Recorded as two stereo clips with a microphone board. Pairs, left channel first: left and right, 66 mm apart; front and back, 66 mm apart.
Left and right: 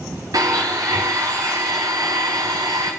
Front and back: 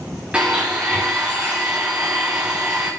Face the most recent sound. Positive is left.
turn(degrees=-105)